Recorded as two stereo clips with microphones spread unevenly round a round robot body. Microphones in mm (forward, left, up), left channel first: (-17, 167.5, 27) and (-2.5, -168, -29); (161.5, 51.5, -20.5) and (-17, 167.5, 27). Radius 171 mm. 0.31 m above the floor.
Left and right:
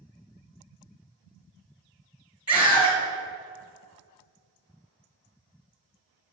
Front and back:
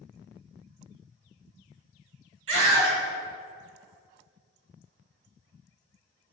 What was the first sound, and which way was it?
A scream, 170° right.